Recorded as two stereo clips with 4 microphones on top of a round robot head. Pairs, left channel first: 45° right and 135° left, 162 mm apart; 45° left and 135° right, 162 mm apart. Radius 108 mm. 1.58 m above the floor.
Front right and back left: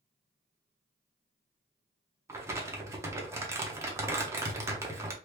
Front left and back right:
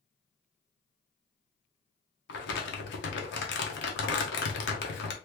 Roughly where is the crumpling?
Ahead left.